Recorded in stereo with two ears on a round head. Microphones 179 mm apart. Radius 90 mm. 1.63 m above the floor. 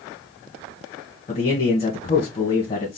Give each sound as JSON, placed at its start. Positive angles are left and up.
{"t": 1.3, "sound": "a man speaking", "side_deg": 30, "distance_m": 1.2}